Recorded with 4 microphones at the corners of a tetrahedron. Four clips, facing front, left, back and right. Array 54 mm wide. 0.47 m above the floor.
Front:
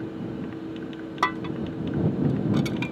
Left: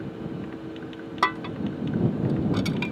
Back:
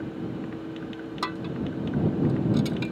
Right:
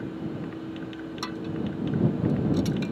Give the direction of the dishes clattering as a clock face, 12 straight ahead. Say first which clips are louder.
Left 7 dB, front 5 dB; 10 o'clock.